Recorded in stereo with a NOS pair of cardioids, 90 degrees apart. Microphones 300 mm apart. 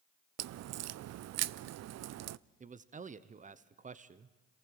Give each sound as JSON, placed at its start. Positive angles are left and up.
{"t": 0.4, "sound": "a crack", "azimuth_deg": -60, "distance_m": 0.5}
{"t": 2.6, "sound": "a man speaking", "azimuth_deg": -25, "distance_m": 0.8}